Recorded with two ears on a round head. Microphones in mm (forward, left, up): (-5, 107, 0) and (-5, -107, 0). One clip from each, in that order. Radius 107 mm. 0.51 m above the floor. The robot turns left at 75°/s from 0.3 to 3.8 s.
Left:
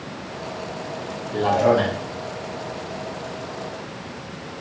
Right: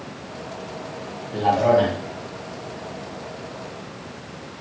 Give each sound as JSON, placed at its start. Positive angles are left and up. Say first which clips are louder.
{"t": 1.3, "sound": "a man speaking", "louder": "right 1 dB", "side_deg": 5, "distance_m": 0.8}